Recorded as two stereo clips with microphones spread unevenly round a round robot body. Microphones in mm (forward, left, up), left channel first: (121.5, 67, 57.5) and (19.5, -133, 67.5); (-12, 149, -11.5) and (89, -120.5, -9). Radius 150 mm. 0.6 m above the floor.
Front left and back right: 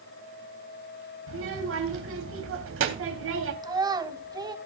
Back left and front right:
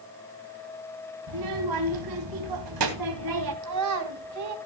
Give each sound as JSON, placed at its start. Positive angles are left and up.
{"t": 1.3, "sound": "a child speaking", "azimuth_deg": -95, "distance_m": 3.5}
{"t": 3.6, "sound": "a child speaking", "azimuth_deg": -45, "distance_m": 3.0}